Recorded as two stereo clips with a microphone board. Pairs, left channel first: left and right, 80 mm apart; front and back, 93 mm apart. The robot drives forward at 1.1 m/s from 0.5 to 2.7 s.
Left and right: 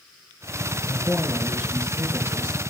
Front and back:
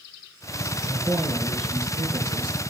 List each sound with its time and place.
0.9 s a man speaking: 155° right, 1.7 m; by 2.6 s 170° right, 3.5 m